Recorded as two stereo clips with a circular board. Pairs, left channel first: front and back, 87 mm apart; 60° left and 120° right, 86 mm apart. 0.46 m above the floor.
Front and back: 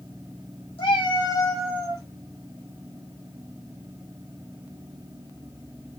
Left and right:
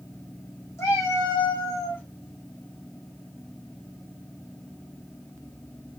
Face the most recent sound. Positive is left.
turn(degrees=130)